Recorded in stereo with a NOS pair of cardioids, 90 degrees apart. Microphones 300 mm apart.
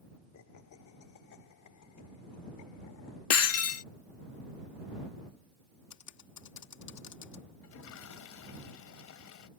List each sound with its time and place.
0.3 s laughter: 70° left; by 3.2 s 80° left
3.3 s breaking glass: 55° left
5.9 s typing on a keyboard: 65° left
7.6 s a toilet flushing: 70° left